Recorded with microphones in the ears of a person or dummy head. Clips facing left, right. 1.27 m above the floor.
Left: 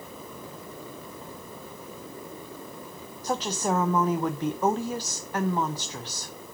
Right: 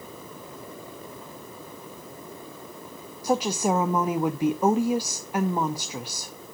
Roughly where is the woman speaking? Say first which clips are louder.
Right 4 dB; centre.